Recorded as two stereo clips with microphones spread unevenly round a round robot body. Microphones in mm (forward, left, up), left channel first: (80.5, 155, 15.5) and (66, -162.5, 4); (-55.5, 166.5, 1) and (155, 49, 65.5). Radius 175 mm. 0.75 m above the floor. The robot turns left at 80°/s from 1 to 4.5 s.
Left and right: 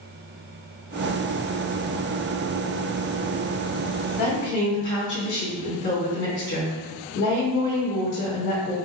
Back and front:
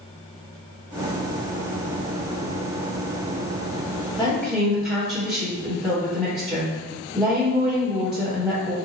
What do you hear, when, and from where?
4.2 s a woman speaking: 85° left, 1.4 m; by 8.8 s 60° left, 1.4 m